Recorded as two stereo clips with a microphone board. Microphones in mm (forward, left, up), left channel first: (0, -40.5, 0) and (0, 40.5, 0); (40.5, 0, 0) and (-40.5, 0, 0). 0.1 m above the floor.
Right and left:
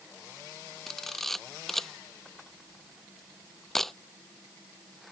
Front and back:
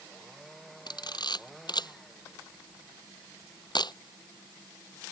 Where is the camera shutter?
5° right.